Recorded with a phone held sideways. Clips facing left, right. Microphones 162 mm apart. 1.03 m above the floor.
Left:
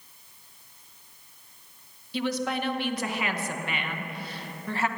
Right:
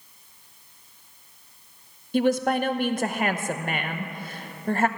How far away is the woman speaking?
About 0.7 m.